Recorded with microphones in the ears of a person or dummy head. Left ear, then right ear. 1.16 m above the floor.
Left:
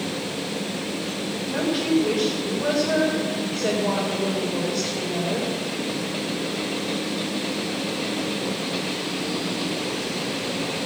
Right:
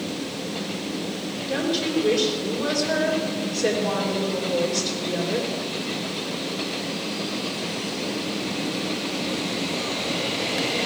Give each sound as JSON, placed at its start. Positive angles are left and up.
{"t": 1.5, "sound": "a woman speaking", "side_deg": -20, "distance_m": 4.0}